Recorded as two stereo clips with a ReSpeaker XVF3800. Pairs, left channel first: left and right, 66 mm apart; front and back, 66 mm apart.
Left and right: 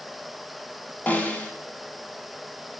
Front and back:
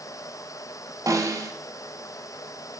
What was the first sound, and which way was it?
A snare drum, 155° left.